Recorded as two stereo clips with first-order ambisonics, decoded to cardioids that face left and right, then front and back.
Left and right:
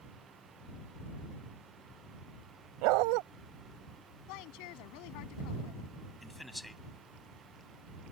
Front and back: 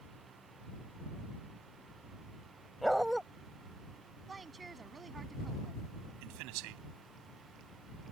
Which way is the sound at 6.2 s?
175° left.